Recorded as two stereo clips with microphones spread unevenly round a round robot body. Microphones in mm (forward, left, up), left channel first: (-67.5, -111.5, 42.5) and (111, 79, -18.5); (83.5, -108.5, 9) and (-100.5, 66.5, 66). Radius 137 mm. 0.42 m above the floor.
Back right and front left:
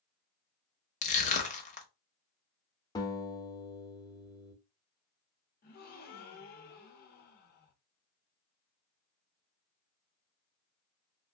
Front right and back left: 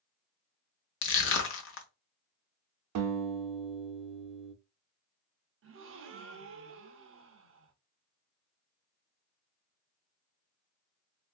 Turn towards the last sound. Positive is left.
turn(degrees=170)